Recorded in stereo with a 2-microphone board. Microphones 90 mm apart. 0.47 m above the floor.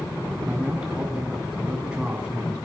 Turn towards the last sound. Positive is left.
turn(degrees=-10)  # may be behind; listen again after turning